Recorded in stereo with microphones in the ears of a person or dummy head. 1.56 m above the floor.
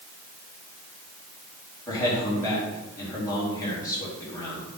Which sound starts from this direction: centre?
A man speaking, at 1.9 s.